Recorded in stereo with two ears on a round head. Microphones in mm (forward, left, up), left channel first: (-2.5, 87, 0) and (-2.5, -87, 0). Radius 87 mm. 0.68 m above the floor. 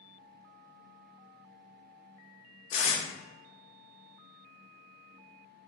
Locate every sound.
2.7 s tape being pulled: 40° left (ahead or behind), 1.4 m